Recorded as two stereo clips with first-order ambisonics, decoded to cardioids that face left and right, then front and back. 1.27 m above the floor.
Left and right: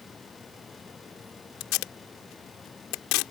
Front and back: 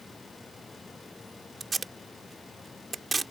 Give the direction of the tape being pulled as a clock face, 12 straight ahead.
9 o'clock.